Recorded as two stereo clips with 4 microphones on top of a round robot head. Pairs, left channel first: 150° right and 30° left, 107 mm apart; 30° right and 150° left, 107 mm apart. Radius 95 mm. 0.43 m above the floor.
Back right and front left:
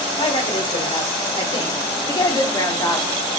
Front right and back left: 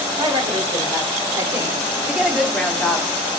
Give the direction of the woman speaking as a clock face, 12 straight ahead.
6 o'clock.